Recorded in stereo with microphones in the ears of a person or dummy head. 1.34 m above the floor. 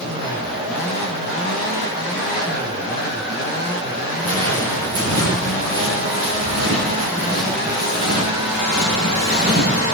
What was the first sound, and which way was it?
Footsteps, 75° right (ahead or behind).